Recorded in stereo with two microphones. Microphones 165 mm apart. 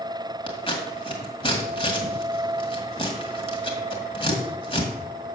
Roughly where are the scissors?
Left.